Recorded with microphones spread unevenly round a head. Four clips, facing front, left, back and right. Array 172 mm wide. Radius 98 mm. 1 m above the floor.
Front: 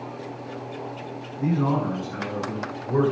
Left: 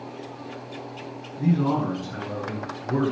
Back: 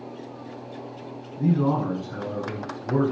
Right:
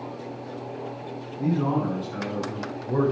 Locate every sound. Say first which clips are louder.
1.4 s a man speaking: left 2 dB, back 1 dB; 175° right, 8.5 m